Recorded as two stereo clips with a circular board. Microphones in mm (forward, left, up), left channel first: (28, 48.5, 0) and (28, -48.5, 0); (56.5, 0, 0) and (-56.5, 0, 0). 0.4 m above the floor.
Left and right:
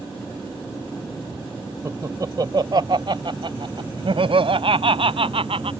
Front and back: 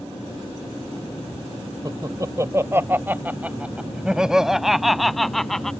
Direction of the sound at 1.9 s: 135° right.